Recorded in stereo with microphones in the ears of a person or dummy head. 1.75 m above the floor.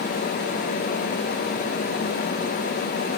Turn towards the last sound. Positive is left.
No sound to turn to.